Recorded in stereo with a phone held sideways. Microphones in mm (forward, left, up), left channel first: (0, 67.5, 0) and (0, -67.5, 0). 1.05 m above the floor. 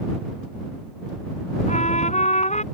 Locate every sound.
1.7 s a trumpet: 60° left (ahead or behind)